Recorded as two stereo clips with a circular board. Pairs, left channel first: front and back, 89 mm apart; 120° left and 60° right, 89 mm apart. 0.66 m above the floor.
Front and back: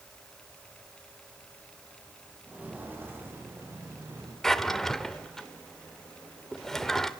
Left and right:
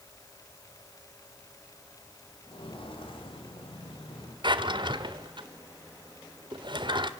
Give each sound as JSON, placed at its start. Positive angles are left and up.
{"t": 2.5, "sound": "footsteps", "azimuth_deg": 105, "distance_m": 6.0}
{"t": 4.4, "sound": "a drawer", "azimuth_deg": -85, "distance_m": 1.4}